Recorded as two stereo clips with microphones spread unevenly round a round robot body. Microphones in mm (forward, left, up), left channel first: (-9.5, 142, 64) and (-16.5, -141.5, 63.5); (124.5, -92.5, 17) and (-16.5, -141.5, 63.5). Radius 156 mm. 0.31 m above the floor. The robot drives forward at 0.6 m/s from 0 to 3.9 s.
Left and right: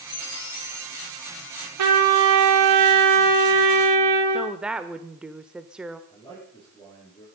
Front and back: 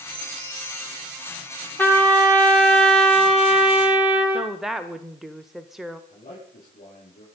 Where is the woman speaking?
10° right, 0.9 m.